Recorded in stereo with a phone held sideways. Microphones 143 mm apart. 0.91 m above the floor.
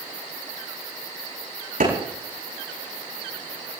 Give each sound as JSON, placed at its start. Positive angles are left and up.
{"t": 1.8, "sound": "a clap", "side_deg": -80, "distance_m": 8.0}